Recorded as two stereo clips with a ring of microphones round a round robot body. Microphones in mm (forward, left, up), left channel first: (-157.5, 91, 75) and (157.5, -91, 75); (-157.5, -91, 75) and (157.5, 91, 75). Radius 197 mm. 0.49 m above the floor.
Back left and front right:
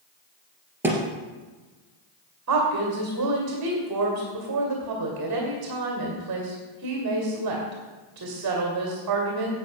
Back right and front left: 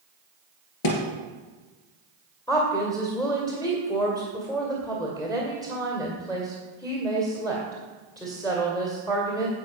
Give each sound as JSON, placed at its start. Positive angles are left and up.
{"t": 0.8, "sound": "a thud", "azimuth_deg": -115, "distance_m": 2.5}
{"t": 2.5, "sound": "a woman speaking", "azimuth_deg": -70, "distance_m": 2.0}